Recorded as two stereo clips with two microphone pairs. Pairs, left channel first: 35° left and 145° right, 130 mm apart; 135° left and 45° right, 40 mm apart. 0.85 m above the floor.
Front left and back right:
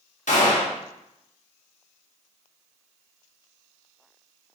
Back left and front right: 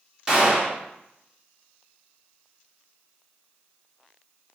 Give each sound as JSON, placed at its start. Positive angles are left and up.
{"t": 0.3, "sound": "a gunshot", "azimuth_deg": 30, "distance_m": 1.0}